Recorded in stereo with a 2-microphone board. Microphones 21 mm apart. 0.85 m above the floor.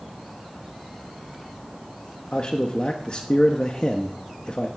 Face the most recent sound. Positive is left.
turn(degrees=45)  # may be behind; listen again after turning